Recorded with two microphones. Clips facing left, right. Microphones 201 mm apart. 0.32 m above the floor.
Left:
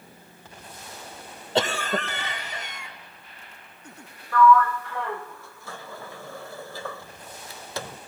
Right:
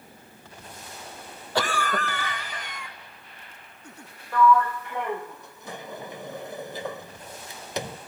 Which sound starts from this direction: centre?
A sliding door, at 4.3 s.